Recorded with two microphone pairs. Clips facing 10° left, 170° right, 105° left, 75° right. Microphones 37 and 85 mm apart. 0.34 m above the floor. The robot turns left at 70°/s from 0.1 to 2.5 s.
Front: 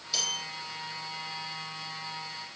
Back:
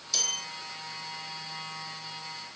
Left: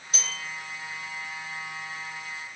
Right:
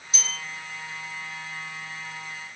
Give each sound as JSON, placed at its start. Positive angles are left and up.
{"t": 0.1, "sound": "a bell", "azimuth_deg": 80, "distance_m": 0.6}